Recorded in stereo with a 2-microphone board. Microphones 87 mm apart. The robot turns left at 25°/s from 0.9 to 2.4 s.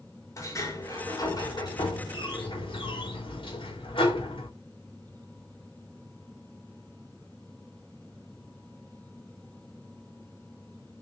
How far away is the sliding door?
About 4.5 m.